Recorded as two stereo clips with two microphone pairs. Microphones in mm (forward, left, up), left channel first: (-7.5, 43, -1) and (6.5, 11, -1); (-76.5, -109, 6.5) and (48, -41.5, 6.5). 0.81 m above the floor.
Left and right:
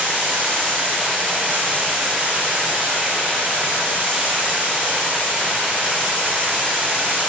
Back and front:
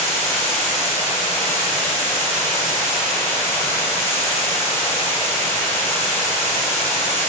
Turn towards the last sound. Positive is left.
turn(degrees=-80)